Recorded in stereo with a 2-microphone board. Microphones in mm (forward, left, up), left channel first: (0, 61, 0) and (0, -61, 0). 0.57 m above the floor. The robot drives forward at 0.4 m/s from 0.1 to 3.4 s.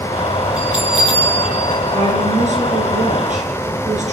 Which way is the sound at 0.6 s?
5° right (ahead or behind).